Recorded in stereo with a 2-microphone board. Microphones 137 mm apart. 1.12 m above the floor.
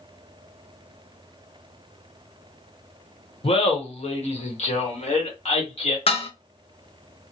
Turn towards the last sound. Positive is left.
turn(degrees=45)  # may be behind; listen again after turning